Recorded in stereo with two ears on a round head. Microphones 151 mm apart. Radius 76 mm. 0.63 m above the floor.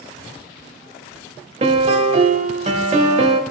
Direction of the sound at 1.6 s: 40° right (ahead or behind).